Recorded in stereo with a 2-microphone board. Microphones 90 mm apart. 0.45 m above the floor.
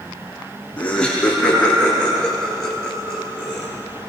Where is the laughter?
5° left (ahead or behind), 6.5 m; by 3.7 s 15° right (ahead or behind), 7 m.